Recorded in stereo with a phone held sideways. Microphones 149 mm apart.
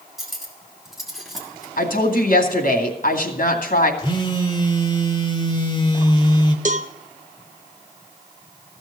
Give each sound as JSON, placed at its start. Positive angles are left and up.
{"t": 0.2, "sound": "cutlery clinking", "side_deg": 0, "distance_m": 2.5}
{"t": 1.8, "sound": "a woman speaking", "side_deg": 70, "distance_m": 2.0}
{"t": 4.0, "sound": "a phone buzzing", "side_deg": 35, "distance_m": 1.3}
{"t": 6.7, "sound": "a cowbell", "side_deg": -55, "distance_m": 0.7}